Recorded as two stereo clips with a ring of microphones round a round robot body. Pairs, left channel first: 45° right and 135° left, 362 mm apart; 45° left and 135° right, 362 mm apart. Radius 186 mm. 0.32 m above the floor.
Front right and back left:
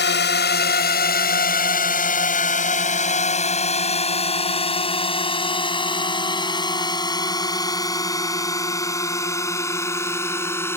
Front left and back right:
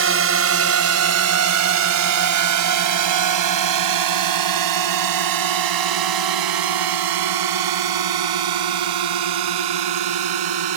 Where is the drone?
95° right; by 10.8 s 130° right.